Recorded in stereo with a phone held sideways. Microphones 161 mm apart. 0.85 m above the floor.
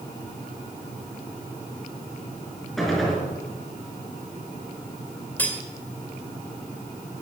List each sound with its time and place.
2.8 s a gunshot: centre (ahead or behind), 4.5 m
5.4 s cutlery clinking: 10° left (ahead or behind), 1.8 m